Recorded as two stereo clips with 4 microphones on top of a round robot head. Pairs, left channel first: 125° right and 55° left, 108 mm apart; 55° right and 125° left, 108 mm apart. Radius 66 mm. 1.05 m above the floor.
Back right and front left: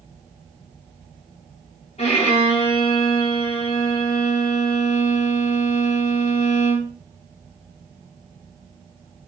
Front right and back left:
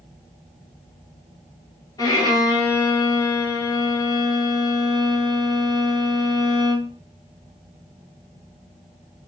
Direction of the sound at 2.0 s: 110° right.